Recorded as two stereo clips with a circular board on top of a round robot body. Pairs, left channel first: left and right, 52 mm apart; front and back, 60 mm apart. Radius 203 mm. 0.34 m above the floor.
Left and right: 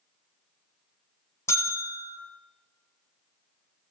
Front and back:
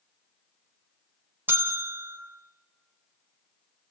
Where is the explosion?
No explosion in this recording.